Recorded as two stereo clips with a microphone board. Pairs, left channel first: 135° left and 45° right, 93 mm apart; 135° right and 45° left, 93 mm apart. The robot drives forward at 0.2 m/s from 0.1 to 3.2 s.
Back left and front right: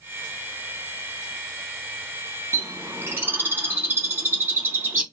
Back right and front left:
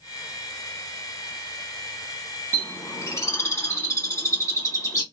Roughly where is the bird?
Right.